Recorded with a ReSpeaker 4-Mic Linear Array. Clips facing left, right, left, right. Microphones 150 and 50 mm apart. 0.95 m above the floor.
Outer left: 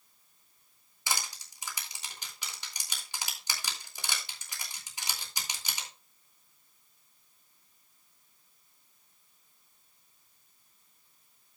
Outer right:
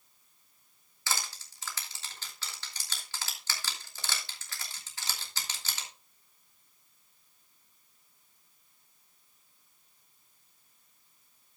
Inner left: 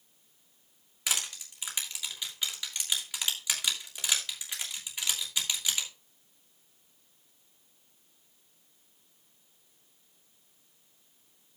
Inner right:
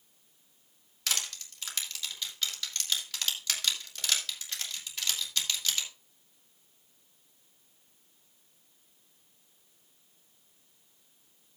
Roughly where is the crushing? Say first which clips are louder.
Outer left 1 dB, inner left 1 dB; centre.